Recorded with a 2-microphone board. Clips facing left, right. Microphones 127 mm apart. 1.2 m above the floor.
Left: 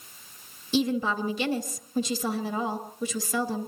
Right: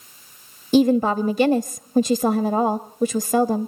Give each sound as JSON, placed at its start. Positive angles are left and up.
{"t": 0.7, "sound": "a woman speaking", "side_deg": -50, "distance_m": 0.8}